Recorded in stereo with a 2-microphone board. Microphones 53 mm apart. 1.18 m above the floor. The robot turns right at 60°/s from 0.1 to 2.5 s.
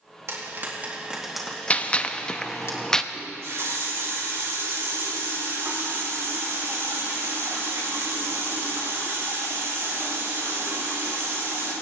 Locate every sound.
0.3 s frying: 65° right (ahead or behind), 2 m; by 2.7 s 65° left (ahead or behind), 2 m
1.7 s a gunshot: 25° left (ahead or behind), 0.5 m; by 3.0 s 10° left (ahead or behind), 0.5 m
3.1 s a running tap: 75° right (ahead or behind), 4.5 m